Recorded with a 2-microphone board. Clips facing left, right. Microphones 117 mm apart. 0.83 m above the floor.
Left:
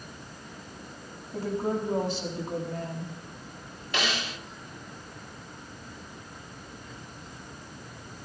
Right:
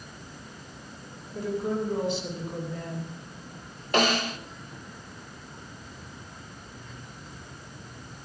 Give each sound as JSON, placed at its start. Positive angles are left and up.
{"t": 1.3, "sound": "a woman speaking", "side_deg": 40, "distance_m": 6.0}
{"t": 3.9, "sound": "a snare drum", "side_deg": -45, "distance_m": 0.8}